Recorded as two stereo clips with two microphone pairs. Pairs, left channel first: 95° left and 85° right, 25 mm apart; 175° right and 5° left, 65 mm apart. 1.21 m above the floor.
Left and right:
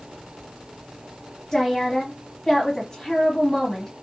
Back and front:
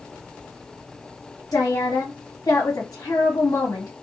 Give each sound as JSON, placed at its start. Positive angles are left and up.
{"t": 1.5, "sound": "a woman speaking", "azimuth_deg": 170, "distance_m": 1.4}